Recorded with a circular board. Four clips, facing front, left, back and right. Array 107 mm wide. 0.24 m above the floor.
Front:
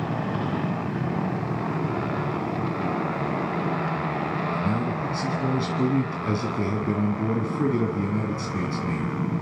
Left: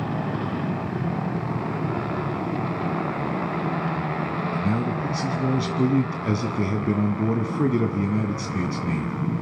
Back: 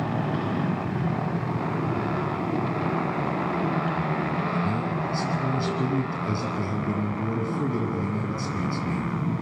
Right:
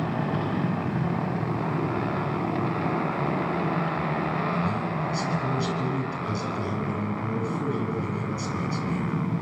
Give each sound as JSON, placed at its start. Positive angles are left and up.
{"t": 4.5, "sound": "a man speaking", "azimuth_deg": 75, "distance_m": 2.0}